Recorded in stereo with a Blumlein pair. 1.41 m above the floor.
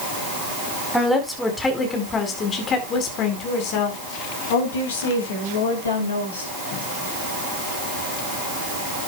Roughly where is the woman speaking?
Ahead.